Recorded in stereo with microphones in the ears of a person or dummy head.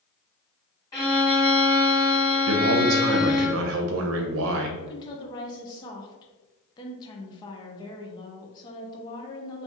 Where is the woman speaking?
20° left (ahead or behind), 0.8 m.